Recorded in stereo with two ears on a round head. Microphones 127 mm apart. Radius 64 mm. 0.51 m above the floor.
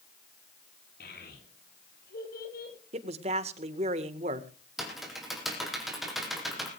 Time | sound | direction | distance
1.0 | a child speaking | 70° left (ahead or behind) | 9 m
2.9 | a man speaking | 45° right (ahead or behind) | 1.9 m
4.8 | typing on a keyboard | centre (ahead or behind) | 4.5 m